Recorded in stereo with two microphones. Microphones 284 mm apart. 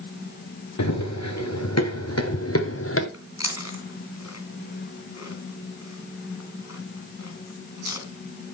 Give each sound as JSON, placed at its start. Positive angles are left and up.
{"t": 0.8, "sound": "running footsteps", "side_deg": 75, "distance_m": 2.5}
{"t": 3.1, "sound": "chewing", "side_deg": 65, "distance_m": 2.5}